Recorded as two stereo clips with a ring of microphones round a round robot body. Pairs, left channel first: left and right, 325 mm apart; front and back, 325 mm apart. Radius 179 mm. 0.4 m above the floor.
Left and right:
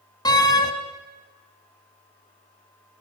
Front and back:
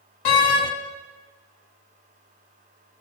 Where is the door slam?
10° left, 2.5 m.